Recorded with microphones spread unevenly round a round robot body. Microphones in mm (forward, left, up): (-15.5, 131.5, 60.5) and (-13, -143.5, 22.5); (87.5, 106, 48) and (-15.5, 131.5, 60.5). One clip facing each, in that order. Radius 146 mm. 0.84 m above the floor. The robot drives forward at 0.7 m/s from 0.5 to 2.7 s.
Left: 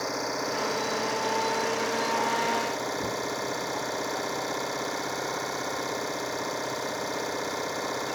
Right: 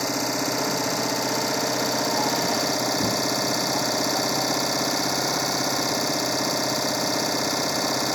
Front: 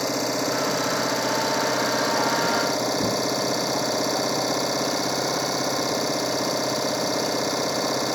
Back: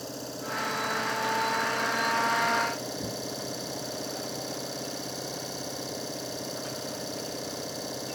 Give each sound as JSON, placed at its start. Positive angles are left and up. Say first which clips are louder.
{"t": 0.0, "sound": "an engine running", "louder": "right 5 dB, front 13 dB", "azimuth_deg": -50}